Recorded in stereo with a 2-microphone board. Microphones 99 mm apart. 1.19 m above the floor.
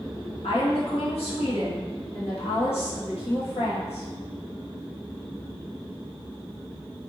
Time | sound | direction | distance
0.4 | a woman speaking | 75° left (ahead or behind) | 1.4 m